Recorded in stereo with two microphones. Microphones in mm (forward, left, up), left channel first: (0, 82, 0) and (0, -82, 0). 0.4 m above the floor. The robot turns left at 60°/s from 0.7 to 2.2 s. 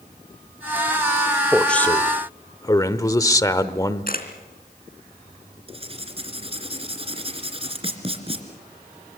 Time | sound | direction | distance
1.5 | a man speaking | straight behind | 0.9 m
4.1 | a camera shutter | 65° left (ahead or behind) | 3 m
5.7 | writing | 35° right (ahead or behind) | 2.5 m